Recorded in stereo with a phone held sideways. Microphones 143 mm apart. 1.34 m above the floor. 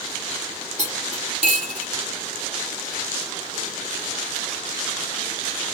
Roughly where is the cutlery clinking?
Right.